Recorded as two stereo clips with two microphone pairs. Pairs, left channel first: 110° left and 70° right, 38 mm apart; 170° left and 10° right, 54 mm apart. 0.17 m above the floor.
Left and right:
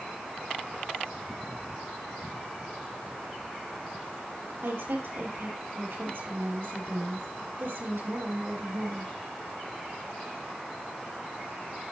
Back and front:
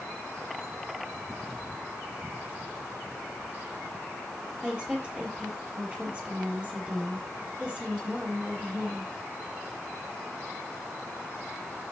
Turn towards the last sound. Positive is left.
turn(degrees=-75)